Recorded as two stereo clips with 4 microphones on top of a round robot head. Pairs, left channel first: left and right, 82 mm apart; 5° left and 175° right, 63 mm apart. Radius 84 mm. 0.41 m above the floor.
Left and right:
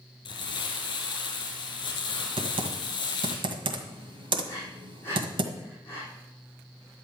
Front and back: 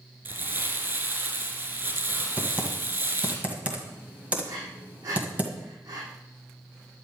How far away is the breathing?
About 5 m.